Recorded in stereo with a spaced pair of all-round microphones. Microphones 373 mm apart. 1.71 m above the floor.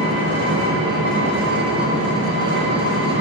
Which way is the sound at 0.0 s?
70° right (ahead or behind).